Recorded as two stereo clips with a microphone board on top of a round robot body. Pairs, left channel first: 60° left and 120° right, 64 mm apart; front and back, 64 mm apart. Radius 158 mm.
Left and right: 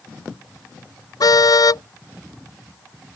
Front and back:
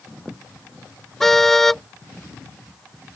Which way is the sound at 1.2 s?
85° left.